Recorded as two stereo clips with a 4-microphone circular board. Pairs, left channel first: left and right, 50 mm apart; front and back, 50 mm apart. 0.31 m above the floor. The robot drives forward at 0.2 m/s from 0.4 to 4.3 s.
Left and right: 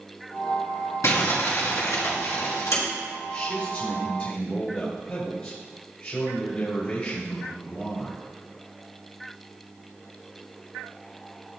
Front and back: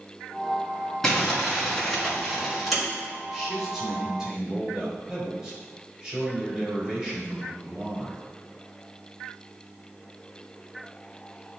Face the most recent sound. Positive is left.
turn(degrees=115)